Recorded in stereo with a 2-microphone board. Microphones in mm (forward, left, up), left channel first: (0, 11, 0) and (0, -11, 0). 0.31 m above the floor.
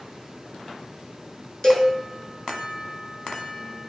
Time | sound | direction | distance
1.6 | a cowbell | 25° left (ahead or behind) | 1.1 m